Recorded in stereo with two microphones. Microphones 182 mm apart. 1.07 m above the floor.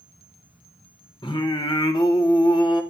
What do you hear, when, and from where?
1.2 s singing: 25° left (ahead or behind), 1.2 m